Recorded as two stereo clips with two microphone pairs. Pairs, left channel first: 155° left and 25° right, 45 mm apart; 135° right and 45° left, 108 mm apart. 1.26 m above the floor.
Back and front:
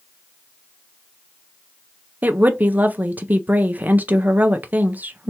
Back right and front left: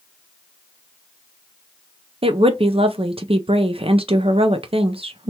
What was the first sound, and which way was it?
A woman speaking, 20° left.